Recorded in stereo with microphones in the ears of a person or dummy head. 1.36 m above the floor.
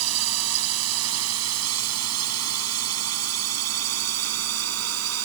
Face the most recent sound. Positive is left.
turn(degrees=-80)